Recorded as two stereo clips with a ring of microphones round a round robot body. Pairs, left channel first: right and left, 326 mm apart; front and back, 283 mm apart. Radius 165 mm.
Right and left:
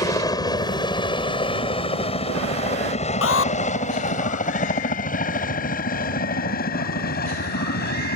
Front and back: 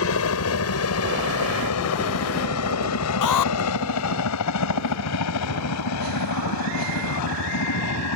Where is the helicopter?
15° right; by 8.2 s 30° right.